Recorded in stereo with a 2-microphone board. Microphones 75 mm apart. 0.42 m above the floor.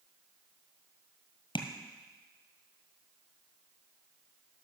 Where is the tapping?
80° left, 1.5 m.